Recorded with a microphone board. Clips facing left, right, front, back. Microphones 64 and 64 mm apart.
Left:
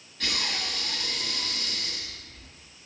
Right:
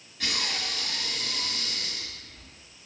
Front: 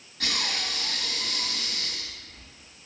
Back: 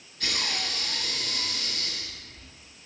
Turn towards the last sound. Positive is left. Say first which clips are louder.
# even, front 1 dB
turn(degrees=-5)